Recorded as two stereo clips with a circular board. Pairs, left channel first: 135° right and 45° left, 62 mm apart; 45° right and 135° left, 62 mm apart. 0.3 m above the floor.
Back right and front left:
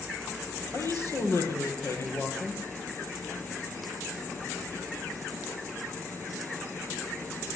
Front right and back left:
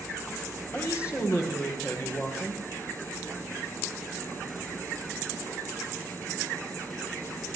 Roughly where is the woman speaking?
Right.